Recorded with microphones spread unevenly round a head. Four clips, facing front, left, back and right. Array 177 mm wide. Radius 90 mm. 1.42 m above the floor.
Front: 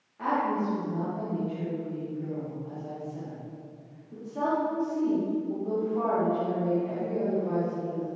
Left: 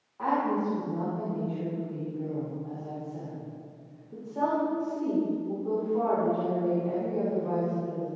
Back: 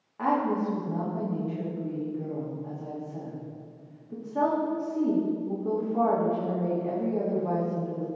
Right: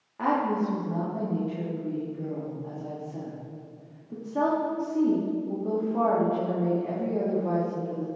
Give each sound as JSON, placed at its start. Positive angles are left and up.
{"t": 0.2, "sound": "a woman speaking", "azimuth_deg": -105, "distance_m": 3.0}